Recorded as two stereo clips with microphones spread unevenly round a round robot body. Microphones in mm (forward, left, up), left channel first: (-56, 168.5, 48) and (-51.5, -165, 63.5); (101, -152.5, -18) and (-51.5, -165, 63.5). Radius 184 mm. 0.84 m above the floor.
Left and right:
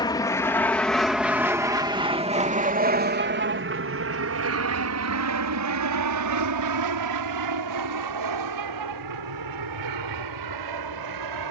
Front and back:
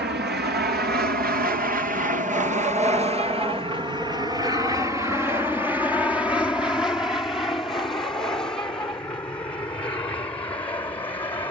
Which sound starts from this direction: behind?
An aircraft, at 0.0 s.